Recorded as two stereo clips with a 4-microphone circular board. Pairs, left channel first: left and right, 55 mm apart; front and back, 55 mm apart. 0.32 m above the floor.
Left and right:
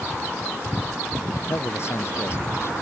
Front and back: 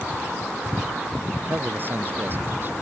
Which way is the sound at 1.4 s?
130° left.